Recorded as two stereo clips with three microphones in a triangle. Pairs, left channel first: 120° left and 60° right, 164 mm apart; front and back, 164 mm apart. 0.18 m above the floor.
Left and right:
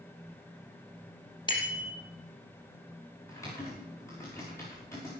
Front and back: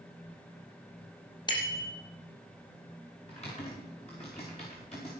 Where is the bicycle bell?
60° left, 3.5 m.